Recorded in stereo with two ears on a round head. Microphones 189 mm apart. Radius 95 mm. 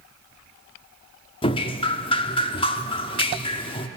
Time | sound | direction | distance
1.4 | dripping | 25° left (ahead or behind) | 0.8 m